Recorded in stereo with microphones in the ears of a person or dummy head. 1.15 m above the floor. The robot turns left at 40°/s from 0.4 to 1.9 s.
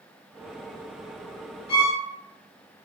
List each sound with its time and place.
1.7 s a violin: 80° left, 1.1 m; by 2.0 s 70° left (ahead or behind), 1.1 m